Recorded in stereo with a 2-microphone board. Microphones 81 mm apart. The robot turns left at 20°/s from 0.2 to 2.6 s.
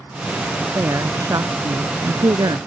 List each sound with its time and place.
0.8 s a woman speaking: 40° right; by 2.6 s 75° right